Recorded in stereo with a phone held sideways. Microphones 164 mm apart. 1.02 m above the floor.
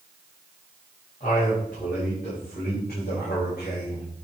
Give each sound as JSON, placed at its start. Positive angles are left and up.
{"t": 1.2, "sound": "a man speaking", "side_deg": 50, "distance_m": 6.0}